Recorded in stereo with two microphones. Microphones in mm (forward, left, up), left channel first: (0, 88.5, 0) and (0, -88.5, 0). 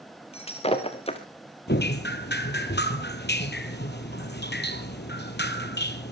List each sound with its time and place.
0.3 s breaking glass: 35° left (ahead or behind), 2 m
1.7 s dripping: 75° left (ahead or behind), 1.4 m